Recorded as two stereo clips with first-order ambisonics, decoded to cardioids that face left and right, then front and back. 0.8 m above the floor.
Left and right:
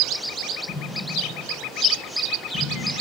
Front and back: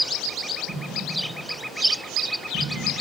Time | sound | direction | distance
0.7 | an explosion | 120° left | 6 m